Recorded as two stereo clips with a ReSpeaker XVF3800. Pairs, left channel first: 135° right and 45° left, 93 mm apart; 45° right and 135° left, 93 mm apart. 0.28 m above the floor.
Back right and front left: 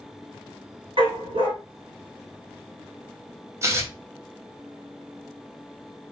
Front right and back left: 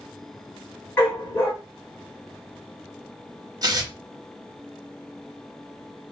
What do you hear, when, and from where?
1.0 s a dog barking: 20° left, 1.1 m
3.6 s tearing paper: 95° left, 0.8 m